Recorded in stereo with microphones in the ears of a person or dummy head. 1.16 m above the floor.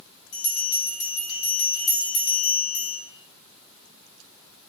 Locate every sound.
0.3 s a bell: 75° left (ahead or behind), 1.1 m